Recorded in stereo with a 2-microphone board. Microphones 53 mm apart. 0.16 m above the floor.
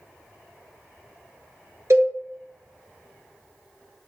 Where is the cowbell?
65° right (ahead or behind), 0.9 m.